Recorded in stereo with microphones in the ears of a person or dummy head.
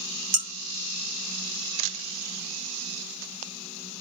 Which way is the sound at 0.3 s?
70° right (ahead or behind).